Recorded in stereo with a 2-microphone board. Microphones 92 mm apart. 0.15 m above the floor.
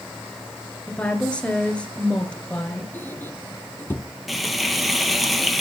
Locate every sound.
0.9 s a woman speaking: 10° left (ahead or behind), 2.5 m
2.9 s a squeak: 20° left (ahead or behind), 1.2 m
4.3 s frying: centre (ahead or behind), 1.1 m